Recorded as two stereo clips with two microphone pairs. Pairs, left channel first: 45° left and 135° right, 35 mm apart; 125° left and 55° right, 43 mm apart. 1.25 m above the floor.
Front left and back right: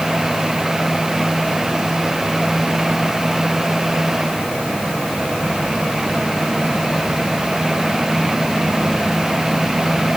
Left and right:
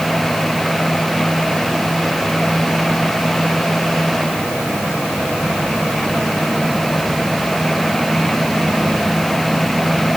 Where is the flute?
I don't hear a flute.